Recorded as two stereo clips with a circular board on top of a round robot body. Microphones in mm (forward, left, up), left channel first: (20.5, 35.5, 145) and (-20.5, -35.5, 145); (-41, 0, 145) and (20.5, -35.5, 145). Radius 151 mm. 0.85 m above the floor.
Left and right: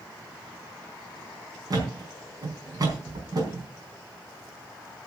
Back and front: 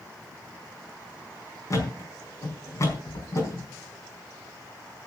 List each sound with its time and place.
1.7 s a thud: 165° right, 5 m